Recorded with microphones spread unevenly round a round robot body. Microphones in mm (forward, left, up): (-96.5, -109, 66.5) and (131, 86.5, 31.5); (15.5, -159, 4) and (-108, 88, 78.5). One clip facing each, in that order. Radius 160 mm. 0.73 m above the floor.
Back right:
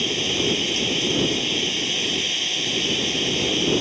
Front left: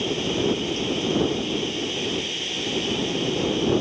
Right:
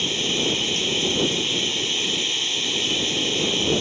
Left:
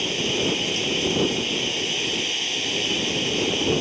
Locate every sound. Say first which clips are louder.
0.0 s running water: front left 2 dB, left 1 dB; 120° right